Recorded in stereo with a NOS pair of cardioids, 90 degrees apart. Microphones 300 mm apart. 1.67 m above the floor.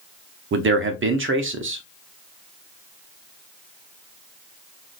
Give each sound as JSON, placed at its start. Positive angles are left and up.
{"t": 0.5, "sound": "a man speaking", "azimuth_deg": -40, "distance_m": 0.8}